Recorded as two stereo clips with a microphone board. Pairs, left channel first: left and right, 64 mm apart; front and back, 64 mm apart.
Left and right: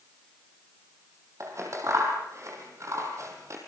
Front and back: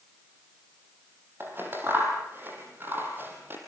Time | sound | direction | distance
1.4 | scissors | 125° right | 5 m